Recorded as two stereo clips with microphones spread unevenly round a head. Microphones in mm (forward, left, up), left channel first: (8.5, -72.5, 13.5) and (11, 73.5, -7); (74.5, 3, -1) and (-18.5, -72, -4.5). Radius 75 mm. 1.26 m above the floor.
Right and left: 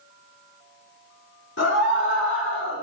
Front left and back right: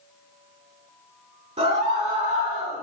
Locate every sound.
1.6 s a scream: 105° right, 3.5 m; by 2.8 s 115° right, 4 m